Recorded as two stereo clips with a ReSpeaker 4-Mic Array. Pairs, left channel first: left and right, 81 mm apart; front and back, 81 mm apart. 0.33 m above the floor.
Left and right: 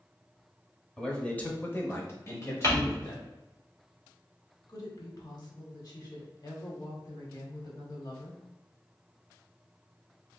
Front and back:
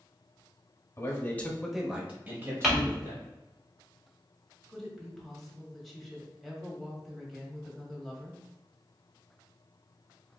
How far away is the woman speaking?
About 1.4 m.